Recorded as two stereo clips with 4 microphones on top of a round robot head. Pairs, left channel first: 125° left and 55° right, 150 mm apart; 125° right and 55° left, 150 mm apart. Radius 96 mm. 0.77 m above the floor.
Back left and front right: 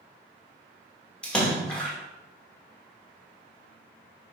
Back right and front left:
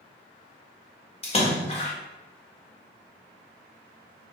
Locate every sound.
1.2 s a splash: 155° right, 1.3 m